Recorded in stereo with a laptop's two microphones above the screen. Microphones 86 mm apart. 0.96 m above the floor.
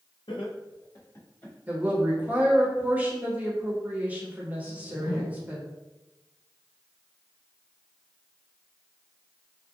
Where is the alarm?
I don't hear an alarm.